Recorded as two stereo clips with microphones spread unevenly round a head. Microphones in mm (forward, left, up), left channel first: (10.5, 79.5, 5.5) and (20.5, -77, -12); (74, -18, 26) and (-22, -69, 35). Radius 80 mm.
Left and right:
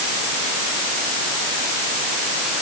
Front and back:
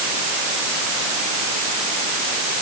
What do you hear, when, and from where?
Only background noise.